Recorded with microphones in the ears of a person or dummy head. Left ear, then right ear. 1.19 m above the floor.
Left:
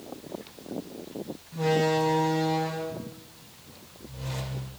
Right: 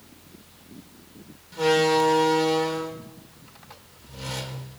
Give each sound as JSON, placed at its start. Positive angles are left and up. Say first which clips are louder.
{"t": 1.5, "sound": "a door slam", "louder": "right 5 dB", "side_deg": -65, "distance_m": 2.5}